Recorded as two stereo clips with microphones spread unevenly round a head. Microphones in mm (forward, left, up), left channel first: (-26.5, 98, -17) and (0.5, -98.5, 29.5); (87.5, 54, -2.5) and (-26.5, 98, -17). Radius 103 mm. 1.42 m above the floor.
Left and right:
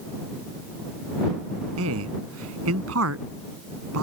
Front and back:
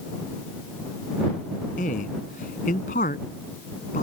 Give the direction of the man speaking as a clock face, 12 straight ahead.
2 o'clock.